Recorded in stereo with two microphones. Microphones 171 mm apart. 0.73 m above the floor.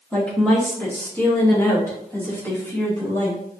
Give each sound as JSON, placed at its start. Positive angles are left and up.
{"t": 0.1, "sound": "a woman speaking", "side_deg": 5, "distance_m": 1.0}